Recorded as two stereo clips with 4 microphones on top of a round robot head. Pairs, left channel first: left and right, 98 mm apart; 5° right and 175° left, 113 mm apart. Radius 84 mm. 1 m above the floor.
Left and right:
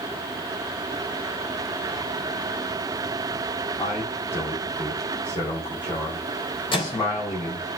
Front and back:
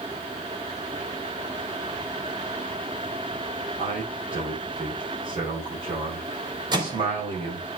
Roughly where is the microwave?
Behind left.